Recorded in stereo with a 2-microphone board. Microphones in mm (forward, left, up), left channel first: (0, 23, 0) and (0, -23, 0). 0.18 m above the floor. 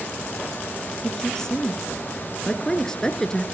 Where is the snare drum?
No snare drum in this recording.